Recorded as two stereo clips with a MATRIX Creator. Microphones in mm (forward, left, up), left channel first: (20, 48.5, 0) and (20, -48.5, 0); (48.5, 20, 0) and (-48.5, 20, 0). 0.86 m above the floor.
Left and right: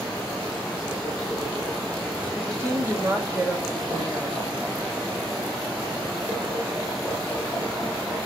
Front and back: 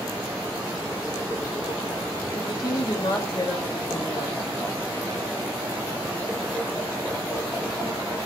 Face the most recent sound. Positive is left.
turn(degrees=-35)